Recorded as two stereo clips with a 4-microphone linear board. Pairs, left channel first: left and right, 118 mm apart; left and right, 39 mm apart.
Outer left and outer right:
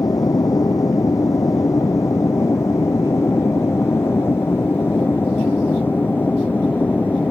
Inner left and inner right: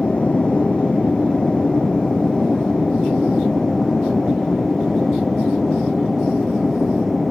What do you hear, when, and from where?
0.0 s an aircraft: 30° left (ahead or behind); by 7.3 s 15° left (ahead or behind)